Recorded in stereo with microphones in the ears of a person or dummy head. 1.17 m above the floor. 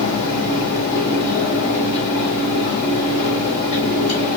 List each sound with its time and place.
0.0 s a fan: 35° left (ahead or behind), 2.5 m